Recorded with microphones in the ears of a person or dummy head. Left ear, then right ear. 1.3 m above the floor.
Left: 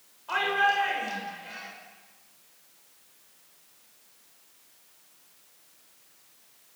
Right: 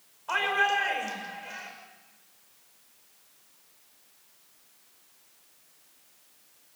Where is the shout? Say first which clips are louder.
Left 1 dB; 35° right (ahead or behind), 6.5 m.